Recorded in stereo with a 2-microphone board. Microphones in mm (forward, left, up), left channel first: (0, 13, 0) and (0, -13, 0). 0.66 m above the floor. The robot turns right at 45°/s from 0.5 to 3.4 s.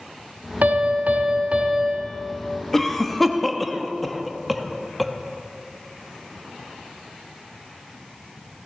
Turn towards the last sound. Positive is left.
turn(degrees=0)  # may be behind; listen again after turning